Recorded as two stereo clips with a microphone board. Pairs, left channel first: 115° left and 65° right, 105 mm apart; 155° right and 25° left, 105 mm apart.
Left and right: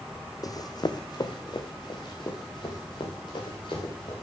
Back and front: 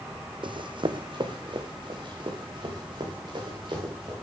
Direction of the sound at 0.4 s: 60° left.